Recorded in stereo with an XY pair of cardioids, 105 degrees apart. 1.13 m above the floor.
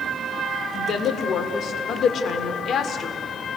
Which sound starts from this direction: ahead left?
A woman speaking, at 0.7 s.